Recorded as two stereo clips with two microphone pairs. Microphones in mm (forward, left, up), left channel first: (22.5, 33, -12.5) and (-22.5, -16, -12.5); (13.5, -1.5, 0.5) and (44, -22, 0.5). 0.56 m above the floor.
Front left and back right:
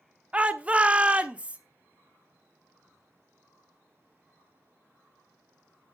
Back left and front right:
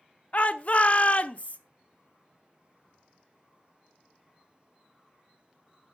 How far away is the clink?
I don't hear a clink.